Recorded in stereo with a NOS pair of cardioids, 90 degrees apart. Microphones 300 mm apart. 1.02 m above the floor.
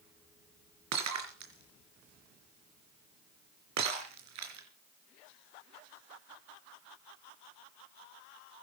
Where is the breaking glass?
65° right, 4 m.